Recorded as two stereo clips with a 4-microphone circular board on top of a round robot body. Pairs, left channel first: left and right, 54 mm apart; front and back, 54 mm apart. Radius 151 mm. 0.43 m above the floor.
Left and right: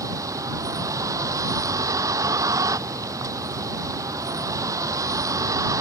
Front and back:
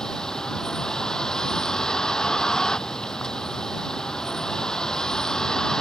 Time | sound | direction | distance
0.0 | a vehicle | 80° right | ?